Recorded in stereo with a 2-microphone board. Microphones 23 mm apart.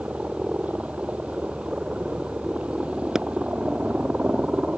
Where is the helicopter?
70° right (ahead or behind).